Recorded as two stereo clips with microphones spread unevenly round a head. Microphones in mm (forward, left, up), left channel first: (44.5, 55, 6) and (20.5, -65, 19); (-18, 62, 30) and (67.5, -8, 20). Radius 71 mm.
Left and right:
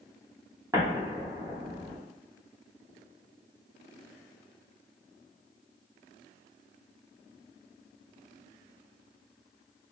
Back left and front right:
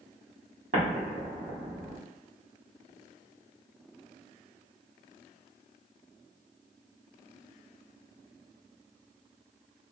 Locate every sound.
0.7 s an explosion: 45° right, 1.0 m